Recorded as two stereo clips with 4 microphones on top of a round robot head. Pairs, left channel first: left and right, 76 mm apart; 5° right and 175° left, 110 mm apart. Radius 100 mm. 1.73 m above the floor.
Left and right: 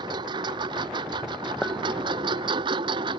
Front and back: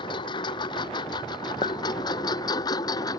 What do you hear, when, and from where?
0.0 s a lawn mower: 55° right; by 3.2 s 65° right
1.6 s a clink: 5° left